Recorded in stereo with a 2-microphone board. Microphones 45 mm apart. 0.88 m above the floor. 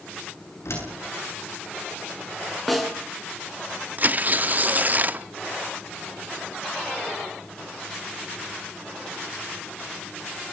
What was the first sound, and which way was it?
A door slam, 80° left.